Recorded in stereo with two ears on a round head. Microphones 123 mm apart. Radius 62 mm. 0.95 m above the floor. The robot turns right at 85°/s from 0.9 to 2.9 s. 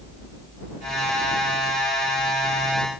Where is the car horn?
No car horn in this recording.